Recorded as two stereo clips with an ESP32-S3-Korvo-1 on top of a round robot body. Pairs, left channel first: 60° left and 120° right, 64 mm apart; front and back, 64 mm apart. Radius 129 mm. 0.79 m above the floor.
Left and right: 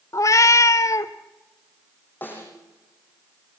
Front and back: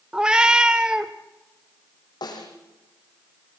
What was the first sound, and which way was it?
A cat meowing, 100° left.